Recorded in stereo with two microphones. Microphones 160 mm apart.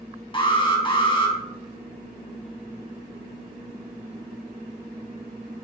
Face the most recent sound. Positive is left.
turn(degrees=30)  # may be behind; listen again after turning